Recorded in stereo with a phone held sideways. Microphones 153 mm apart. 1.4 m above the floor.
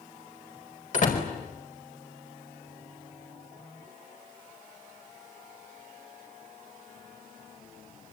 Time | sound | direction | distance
0.9 | a door slam | 55° left (ahead or behind) | 5 m